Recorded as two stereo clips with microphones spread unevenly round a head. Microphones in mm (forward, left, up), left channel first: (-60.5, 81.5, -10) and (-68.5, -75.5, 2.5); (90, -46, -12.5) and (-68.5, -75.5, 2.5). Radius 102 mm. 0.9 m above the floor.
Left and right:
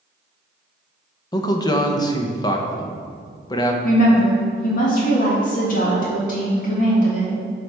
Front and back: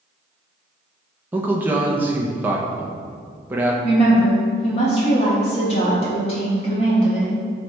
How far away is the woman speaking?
About 1.5 m.